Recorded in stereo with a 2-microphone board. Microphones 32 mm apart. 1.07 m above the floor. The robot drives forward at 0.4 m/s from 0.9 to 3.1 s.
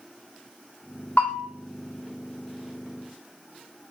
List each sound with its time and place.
1.2 s a bell: 55° left (ahead or behind), 3.5 m